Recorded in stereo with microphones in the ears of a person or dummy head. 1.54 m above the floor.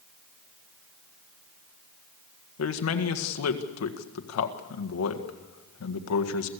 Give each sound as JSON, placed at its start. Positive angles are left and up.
{"t": 2.6, "sound": "a man speaking", "side_deg": 75, "distance_m": 1.7}